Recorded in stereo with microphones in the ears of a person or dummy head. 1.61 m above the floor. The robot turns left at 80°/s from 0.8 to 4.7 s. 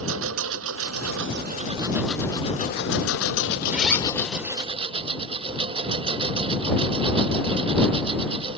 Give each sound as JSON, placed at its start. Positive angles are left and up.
{"t": 0.0, "sound": "a lawn mower", "azimuth_deg": -80}
{"t": 3.7, "sound": "a zipper", "azimuth_deg": -170}